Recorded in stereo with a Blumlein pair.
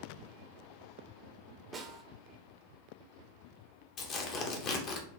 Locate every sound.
1.7 s a snare drum: 15° right, 0.6 m
4.0 s tearing paper: 30° left, 0.7 m